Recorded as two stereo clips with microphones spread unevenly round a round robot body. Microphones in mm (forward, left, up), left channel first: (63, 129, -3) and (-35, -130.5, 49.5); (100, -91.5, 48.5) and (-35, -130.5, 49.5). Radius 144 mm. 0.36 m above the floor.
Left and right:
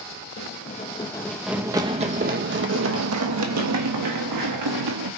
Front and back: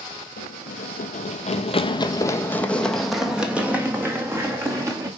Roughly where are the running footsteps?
Ahead.